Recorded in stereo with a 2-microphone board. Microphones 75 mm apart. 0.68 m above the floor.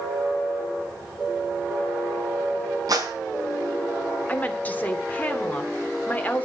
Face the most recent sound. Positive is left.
turn(degrees=25)  # may be behind; listen again after turning